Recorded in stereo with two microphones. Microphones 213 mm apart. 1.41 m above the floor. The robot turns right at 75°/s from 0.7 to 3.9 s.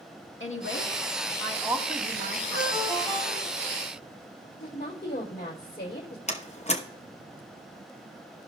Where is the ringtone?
160° left, 5 m; by 3.8 s 110° right, 5 m.